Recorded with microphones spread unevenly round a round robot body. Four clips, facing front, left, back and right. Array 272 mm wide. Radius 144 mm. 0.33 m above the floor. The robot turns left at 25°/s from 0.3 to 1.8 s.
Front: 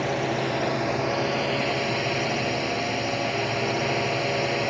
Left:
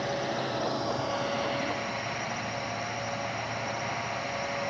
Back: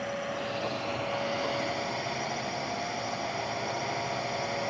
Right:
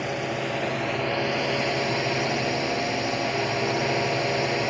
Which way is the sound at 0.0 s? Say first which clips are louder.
Right 2 dB, front 8 dB; 15° right.